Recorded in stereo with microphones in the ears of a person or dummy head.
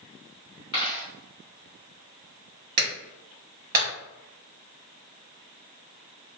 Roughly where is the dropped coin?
Left.